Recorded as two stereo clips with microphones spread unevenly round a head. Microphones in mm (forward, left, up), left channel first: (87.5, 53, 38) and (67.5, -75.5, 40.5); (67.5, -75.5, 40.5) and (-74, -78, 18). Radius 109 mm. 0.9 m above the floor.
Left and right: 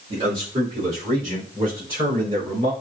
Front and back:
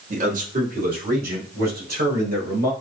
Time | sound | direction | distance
0.1 | a man speaking | 155° right | 1.6 m